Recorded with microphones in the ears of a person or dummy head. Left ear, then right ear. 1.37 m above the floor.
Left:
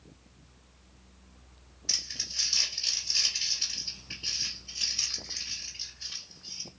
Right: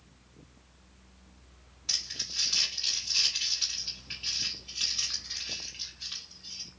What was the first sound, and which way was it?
Crumpling, 30° right (ahead or behind).